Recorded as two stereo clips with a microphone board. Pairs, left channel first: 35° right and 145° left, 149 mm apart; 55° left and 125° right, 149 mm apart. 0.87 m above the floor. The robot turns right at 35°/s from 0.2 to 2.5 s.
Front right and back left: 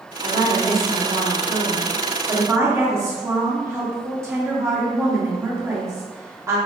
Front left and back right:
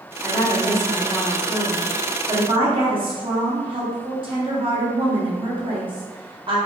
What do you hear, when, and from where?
0.2 s a woman speaking: 125° left, 1.2 m; by 6.6 s 155° right, 1.2 m